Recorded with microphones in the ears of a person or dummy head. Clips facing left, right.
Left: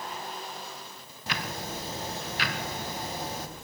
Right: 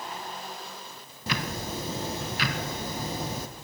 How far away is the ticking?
About 0.6 m.